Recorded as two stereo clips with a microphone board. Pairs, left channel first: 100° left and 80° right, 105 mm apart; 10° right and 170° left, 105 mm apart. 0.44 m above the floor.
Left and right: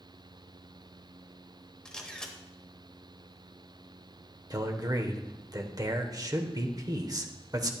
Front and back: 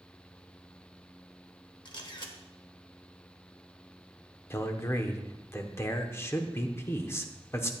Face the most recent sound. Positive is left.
turn(degrees=-65)